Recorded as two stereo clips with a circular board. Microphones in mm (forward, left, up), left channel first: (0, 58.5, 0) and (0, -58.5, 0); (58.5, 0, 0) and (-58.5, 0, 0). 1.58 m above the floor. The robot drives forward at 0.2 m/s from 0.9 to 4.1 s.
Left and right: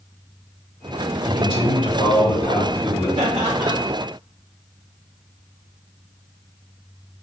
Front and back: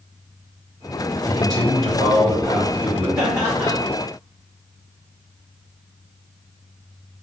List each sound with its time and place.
1.3 s a man speaking: 125° left, 1.4 m; by 3.1 s 135° left, 1.6 m
3.2 s laughter: 120° right, 0.7 m; by 3.8 s 125° right, 0.8 m